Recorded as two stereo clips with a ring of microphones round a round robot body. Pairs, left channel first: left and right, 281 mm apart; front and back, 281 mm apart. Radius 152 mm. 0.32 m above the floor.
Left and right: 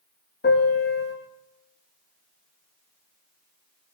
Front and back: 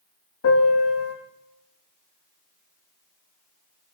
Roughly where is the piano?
Ahead left.